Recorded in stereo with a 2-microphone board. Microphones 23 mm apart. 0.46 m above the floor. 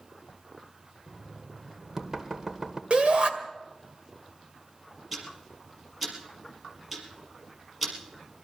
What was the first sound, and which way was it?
Knocking, 20° right (ahead or behind).